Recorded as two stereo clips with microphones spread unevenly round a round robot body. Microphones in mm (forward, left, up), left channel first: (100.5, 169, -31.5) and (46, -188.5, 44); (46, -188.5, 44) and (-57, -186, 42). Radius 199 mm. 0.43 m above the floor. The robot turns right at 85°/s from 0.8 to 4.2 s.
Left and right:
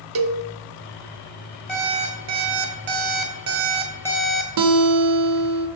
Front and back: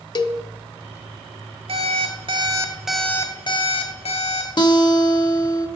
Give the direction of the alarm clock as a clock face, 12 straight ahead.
7 o'clock.